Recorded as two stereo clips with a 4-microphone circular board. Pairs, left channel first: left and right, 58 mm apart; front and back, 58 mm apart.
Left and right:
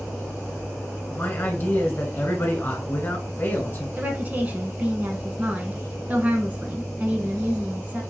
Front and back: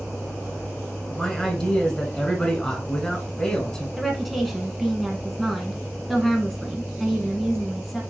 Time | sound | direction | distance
1.1 | a man speaking | 70° left | 1.6 m
4.0 | a woman speaking | 80° right | 1.1 m